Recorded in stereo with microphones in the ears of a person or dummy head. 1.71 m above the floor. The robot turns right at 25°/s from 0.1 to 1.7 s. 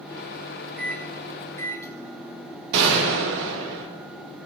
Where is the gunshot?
65° right (ahead or behind), 1.3 m.